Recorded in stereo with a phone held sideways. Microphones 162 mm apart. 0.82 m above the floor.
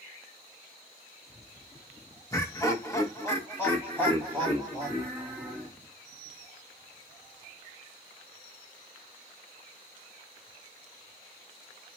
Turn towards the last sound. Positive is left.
turn(degrees=5)  # may be behind; listen again after turning